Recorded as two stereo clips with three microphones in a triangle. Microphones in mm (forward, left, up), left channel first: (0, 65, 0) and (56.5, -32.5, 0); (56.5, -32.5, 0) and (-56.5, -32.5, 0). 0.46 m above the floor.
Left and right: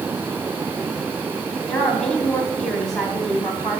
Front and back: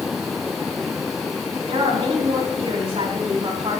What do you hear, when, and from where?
1.7 s a woman speaking: 155° right, 3 m